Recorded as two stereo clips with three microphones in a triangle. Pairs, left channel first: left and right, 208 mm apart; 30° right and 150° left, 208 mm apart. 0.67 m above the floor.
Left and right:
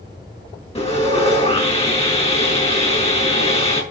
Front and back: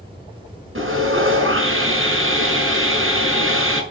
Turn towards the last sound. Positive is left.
turn(degrees=150)